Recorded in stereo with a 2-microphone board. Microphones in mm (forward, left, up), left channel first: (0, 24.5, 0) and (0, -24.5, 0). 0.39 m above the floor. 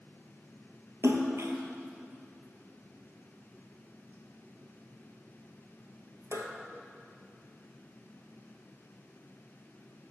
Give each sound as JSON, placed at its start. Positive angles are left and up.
{"t": 1.0, "sound": "a splash", "side_deg": -80, "distance_m": 1.3}